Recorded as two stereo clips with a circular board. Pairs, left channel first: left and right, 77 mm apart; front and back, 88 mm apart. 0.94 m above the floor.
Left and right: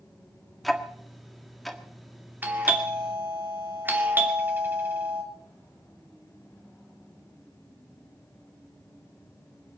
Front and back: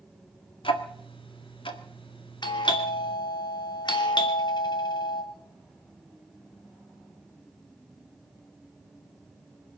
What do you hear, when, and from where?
0.6 s ticking: straight ahead, 1.6 m
2.4 s a doorbell: 25° right, 2.5 m